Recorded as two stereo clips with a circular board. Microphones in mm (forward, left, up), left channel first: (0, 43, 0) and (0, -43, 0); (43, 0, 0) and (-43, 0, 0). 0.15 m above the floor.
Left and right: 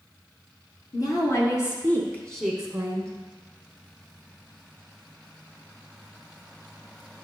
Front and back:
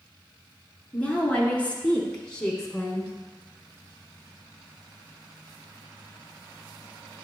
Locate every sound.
0.9 s a woman speaking: 70° left, 1.7 m; by 3.1 s 85° right, 1.2 m